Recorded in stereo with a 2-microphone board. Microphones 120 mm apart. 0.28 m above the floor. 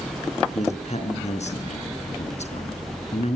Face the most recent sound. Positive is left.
turn(degrees=70)  # may be behind; listen again after turning